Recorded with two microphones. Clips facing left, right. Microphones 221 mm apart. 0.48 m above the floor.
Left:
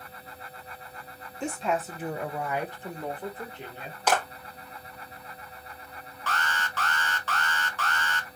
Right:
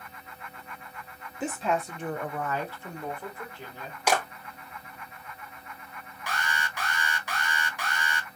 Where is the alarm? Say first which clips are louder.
Left 1 dB; 15° right (ahead or behind), 0.7 m.